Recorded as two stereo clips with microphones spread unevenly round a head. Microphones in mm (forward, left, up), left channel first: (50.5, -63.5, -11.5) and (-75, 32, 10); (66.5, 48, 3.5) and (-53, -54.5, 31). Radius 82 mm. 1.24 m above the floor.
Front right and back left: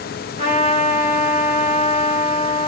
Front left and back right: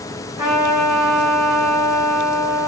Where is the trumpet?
160° left, 1.7 m.